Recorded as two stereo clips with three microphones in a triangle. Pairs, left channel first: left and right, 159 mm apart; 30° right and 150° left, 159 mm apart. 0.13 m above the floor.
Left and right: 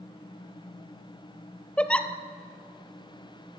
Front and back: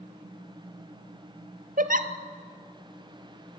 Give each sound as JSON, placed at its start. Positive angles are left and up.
{"t": 1.8, "sound": "a giggle", "azimuth_deg": 170, "distance_m": 1.2}